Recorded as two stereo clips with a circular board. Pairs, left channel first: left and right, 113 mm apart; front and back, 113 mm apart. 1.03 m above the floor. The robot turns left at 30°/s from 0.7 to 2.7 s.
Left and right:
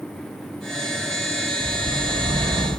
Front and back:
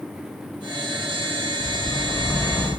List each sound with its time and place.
1.6 s a bird: 40° right, 3 m; by 2.7 s 70° right, 3 m